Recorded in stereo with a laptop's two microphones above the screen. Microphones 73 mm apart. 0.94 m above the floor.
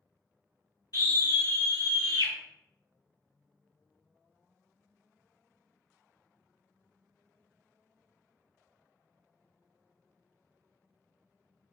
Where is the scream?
70° left (ahead or behind), 1.6 m.